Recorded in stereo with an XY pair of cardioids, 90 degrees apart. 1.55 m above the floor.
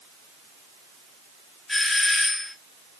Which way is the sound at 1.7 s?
30° left.